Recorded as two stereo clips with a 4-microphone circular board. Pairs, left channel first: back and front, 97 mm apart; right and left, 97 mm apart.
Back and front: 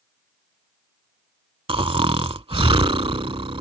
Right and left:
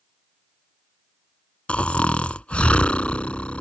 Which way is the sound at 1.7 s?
15° right.